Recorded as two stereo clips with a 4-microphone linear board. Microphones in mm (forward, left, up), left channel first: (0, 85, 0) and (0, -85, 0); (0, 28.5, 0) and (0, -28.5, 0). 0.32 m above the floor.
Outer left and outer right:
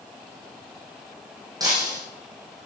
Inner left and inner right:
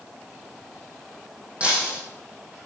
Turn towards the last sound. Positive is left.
turn(degrees=-20)  # may be behind; listen again after turning